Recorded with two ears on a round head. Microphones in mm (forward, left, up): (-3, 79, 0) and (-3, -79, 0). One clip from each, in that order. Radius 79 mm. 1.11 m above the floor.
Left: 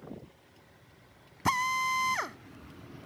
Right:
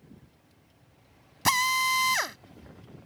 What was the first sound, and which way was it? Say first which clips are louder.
A drill: right 4 dB; 80° right.